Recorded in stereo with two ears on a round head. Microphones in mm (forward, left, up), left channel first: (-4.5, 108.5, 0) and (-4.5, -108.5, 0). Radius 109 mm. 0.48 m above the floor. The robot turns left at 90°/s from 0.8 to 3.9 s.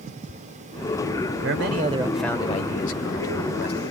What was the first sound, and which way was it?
A man speaking, 110° right.